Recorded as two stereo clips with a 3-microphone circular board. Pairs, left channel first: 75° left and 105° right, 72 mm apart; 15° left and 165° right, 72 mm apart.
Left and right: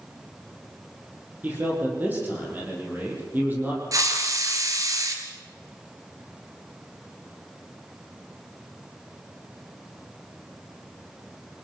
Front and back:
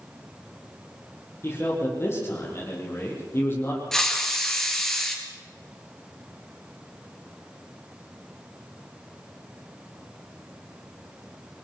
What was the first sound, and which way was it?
A man speaking, 40° right.